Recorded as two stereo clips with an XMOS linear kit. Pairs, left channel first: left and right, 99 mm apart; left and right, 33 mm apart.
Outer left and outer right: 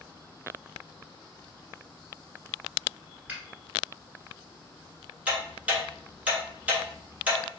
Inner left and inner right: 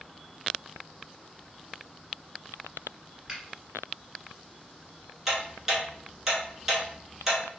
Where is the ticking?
15° right (ahead or behind), 1.1 m.